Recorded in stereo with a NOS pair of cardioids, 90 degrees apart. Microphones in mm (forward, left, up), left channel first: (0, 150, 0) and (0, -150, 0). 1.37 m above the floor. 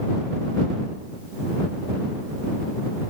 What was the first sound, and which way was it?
Only background noise.